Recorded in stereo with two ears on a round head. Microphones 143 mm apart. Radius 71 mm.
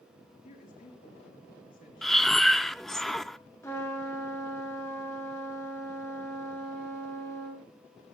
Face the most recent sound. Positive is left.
turn(degrees=20)  # may be behind; listen again after turning